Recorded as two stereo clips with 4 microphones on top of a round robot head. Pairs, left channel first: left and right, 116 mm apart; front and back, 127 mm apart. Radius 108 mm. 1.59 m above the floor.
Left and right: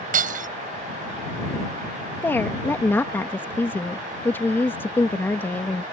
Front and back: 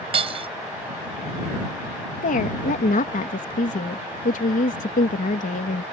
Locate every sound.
0.1 s breaking glass: 120° right
2.2 s a woman speaking: 15° left